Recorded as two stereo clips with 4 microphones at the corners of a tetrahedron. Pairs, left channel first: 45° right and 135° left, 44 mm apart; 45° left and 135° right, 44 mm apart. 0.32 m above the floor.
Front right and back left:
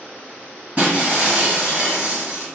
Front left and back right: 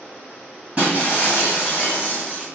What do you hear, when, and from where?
0.8 s breaking glass: 170° left, 1.4 m